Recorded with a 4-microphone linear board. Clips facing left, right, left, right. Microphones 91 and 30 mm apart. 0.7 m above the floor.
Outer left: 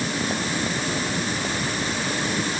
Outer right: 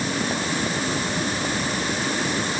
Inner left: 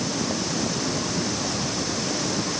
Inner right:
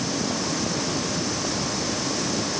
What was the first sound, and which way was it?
Only background noise.